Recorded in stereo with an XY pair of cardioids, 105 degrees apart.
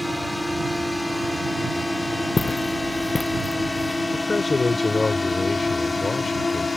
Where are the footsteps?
25° left.